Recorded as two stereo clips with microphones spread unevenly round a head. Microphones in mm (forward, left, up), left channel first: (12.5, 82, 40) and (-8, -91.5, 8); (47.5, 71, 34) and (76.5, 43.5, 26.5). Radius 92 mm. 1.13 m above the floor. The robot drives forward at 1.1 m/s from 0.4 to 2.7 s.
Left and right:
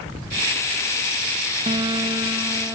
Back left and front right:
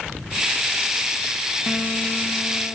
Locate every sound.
1.7 s a phone buzzing: 160° right, 0.7 m; by 2.8 s 175° right, 1.8 m